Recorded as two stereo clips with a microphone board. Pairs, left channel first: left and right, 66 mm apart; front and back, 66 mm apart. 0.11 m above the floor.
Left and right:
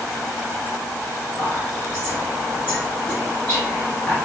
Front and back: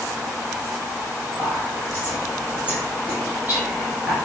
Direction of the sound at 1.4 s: 150° left.